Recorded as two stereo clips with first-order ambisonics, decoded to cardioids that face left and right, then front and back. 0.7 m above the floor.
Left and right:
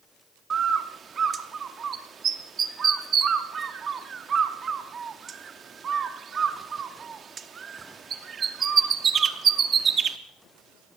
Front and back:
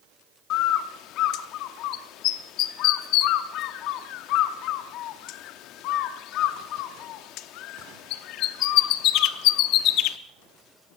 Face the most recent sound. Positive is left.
turn(degrees=-25)